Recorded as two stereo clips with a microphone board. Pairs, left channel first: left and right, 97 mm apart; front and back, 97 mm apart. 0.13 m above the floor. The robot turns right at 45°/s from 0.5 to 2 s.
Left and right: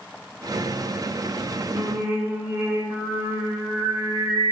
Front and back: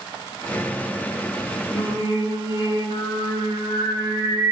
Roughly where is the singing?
Ahead right.